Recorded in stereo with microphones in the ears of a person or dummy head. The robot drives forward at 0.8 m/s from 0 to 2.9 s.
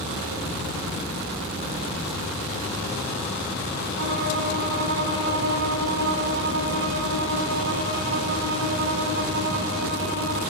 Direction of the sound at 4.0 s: 60° right (ahead or behind).